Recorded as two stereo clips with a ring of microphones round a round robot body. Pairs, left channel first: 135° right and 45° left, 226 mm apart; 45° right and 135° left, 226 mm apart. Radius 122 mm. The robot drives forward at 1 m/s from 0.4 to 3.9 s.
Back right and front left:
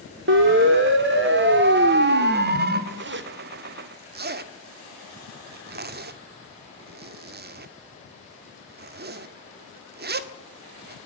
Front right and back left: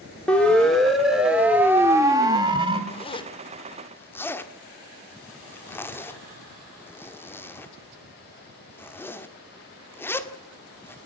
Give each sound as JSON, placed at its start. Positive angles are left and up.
{"t": 0.3, "sound": "a siren", "azimuth_deg": 40, "distance_m": 2.0}
{"t": 2.9, "sound": "a zipper", "azimuth_deg": 15, "distance_m": 2.5}